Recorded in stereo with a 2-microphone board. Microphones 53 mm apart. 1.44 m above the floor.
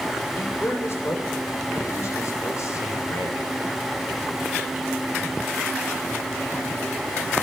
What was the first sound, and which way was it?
A man speaking, 50° left (ahead or behind).